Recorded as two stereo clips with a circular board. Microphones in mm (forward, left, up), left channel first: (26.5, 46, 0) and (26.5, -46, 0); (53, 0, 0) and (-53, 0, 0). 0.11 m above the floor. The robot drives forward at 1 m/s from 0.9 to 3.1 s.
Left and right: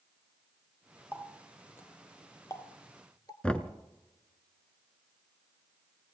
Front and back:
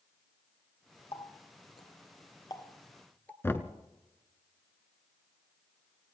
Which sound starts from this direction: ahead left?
Knocking, at 3.4 s.